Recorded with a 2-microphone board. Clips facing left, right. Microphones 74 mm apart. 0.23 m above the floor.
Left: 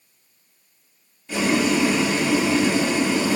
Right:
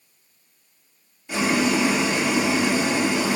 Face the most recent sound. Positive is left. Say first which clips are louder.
# left 1 dB
turn(degrees=-15)  # may be behind; listen again after turning